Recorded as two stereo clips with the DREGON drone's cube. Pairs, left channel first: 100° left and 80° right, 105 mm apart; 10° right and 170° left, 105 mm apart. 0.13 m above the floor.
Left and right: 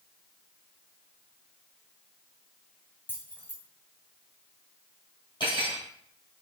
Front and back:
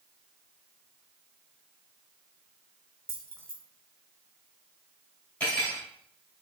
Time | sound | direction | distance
3.1 | keys jangling | 145° left | 0.8 m
5.4 | cutlery clinking | 65° left | 1.7 m